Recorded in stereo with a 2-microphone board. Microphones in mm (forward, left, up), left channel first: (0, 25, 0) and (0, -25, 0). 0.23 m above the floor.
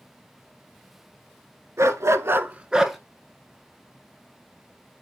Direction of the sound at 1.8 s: 75° right (ahead or behind).